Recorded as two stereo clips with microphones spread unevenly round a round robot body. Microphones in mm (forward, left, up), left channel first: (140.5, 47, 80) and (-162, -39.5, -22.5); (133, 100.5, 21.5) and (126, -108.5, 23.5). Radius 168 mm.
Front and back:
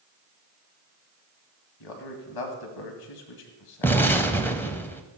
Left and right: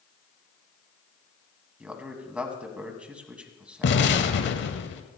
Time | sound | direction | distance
1.8 | a man speaking | 10° right | 2.5 m
3.8 | an explosion | 110° left | 0.8 m